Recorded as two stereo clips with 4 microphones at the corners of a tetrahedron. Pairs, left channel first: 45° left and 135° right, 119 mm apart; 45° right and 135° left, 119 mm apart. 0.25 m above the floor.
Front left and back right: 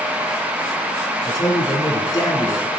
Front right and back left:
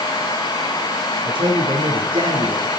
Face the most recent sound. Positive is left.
turn(degrees=95)